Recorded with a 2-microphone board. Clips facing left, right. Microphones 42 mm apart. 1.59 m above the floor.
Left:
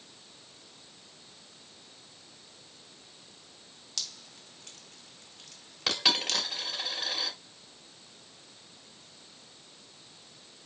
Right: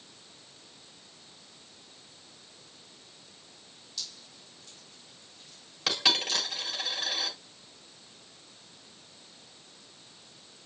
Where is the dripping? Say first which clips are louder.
Left 2 dB; 75° left (ahead or behind), 2.5 m.